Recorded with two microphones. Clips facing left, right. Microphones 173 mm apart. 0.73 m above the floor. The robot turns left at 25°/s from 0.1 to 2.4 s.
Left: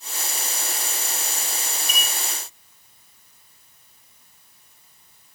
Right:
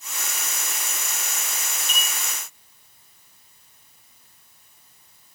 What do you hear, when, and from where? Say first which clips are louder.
1.9 s a clink: left 1 dB; 10° left (ahead or behind), 8.5 m; by 2.1 s 15° left (ahead or behind), 8.5 m